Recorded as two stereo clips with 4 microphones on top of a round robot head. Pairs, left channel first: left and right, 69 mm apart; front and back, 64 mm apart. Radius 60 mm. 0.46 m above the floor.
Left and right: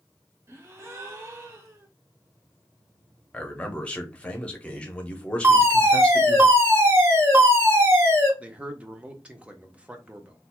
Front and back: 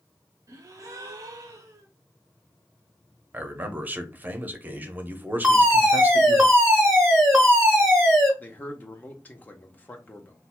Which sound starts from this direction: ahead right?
A man speaking, at 8.4 s.